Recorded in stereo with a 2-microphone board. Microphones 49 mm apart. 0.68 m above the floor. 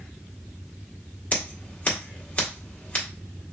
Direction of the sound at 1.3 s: 35° left (ahead or behind).